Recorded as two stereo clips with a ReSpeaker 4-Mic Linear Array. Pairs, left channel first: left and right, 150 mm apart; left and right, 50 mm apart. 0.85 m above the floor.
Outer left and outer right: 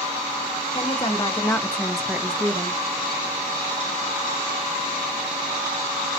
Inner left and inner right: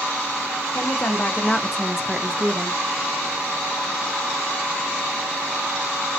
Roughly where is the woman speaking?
Left.